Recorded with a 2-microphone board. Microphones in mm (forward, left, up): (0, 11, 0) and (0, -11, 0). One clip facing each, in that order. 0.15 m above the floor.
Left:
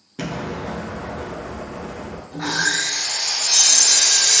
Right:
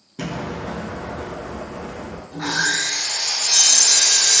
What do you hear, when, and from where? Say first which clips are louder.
0.2 s an explosion: even; 20° left (ahead or behind), 0.6 m
2.3 s sawing: even; 20° right (ahead or behind), 1.4 m